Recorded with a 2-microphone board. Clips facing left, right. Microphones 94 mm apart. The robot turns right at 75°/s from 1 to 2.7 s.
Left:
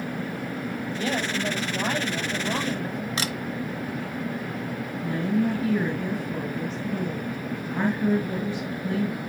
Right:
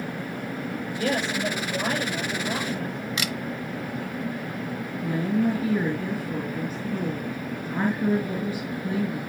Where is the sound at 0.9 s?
100° right, 5.5 m; by 3.1 s 25° left, 5.5 m.